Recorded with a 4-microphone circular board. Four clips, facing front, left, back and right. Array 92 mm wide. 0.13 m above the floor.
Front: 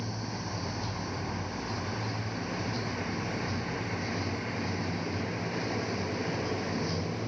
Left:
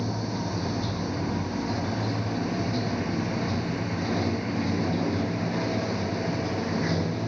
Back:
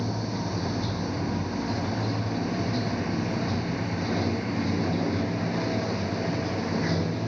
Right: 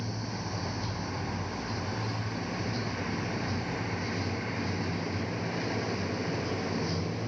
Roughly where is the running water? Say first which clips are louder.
Left 7 dB, back 7 dB; behind left.